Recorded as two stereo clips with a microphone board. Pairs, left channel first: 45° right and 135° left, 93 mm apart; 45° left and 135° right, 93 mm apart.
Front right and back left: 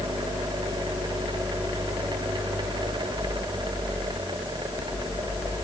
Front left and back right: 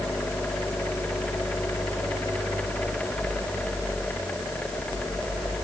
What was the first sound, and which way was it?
Only background noise.